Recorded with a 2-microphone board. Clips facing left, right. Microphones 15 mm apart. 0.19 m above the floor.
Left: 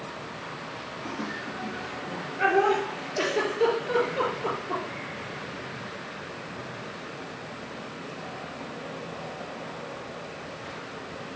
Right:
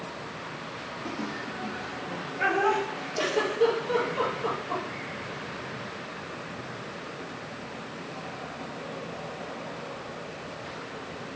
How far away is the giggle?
About 4 m.